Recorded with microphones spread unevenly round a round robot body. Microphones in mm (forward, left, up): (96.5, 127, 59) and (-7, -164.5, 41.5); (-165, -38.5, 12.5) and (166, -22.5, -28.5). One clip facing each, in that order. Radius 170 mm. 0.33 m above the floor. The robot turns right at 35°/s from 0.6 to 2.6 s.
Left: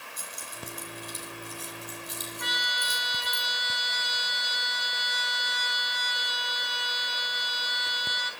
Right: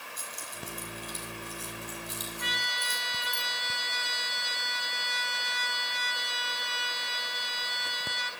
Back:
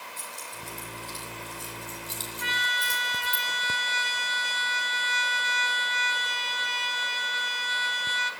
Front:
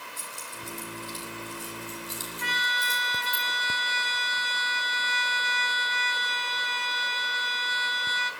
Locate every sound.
0.2 s keys jangling: 60° left, 7.5 m; by 3.4 s 130° left, 7.5 m
2.4 s a trumpet: 100° left, 2.5 m; by 8.3 s 105° left, 2.5 m